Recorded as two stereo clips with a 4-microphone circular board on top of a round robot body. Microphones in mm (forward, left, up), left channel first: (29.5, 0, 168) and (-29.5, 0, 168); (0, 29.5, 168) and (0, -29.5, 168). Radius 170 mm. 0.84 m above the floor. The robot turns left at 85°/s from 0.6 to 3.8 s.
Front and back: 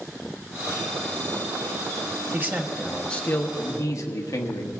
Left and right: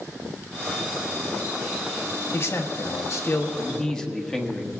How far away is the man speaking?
About 1.4 m.